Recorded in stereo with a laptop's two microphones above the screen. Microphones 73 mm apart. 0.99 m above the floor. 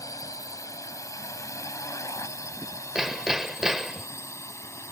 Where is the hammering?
5° right (ahead or behind).